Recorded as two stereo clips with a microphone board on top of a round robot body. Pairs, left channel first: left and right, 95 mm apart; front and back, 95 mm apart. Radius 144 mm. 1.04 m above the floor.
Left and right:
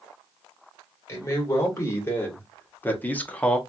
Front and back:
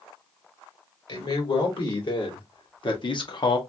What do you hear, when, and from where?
1.1 s a man speaking: 30° left, 2 m; by 3.6 s 10° left, 1.0 m